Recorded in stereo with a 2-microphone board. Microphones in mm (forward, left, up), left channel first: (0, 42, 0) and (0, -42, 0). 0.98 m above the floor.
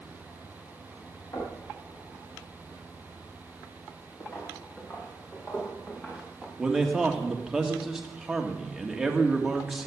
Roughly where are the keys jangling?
I don't hear keys jangling.